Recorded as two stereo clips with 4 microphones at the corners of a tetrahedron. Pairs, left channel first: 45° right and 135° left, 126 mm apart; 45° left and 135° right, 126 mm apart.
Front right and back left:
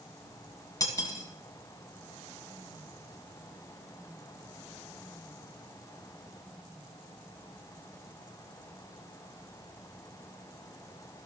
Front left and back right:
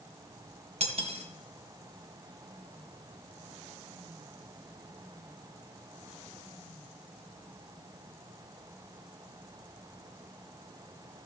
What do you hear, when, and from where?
0.8 s cutlery clinking: 105° right, 1.5 m